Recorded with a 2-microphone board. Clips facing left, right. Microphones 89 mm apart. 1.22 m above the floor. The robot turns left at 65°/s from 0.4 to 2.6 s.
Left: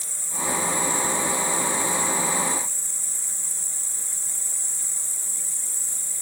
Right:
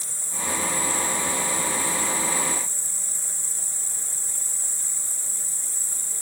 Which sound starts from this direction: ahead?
An insect, at 0.0 s.